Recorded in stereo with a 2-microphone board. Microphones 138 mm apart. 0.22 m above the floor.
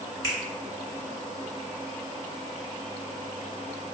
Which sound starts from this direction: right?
A finger snap, at 0.2 s.